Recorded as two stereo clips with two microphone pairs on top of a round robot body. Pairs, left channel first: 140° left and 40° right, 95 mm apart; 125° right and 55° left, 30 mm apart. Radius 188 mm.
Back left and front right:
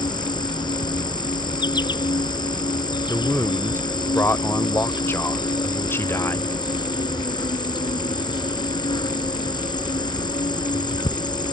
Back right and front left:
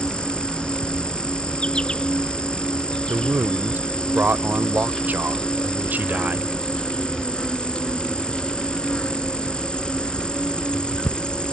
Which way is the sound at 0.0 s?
175° left.